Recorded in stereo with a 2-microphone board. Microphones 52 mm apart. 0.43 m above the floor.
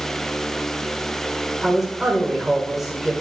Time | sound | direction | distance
1.6 | a man speaking | 5° right (ahead or behind) | 1.6 m